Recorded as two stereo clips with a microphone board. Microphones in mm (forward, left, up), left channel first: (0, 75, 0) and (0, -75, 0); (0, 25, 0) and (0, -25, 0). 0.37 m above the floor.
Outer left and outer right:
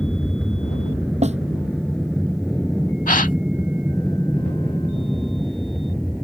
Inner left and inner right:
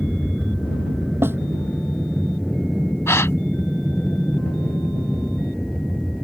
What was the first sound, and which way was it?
An aircraft, 5° left (ahead or behind).